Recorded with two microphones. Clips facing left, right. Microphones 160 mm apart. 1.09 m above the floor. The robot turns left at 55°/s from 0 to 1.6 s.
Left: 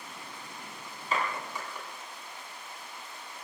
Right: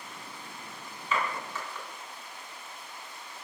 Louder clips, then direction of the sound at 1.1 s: Even; 40° left (ahead or behind).